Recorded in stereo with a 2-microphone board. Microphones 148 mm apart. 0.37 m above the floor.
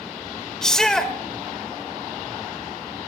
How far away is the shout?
About 1.2 m.